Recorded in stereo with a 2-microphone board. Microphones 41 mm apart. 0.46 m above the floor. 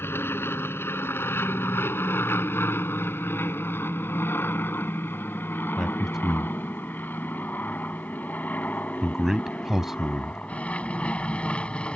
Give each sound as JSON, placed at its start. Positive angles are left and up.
{"t": 0.0, "sound": "an aircraft", "side_deg": 75}
{"t": 5.8, "sound": "a man speaking", "side_deg": -10}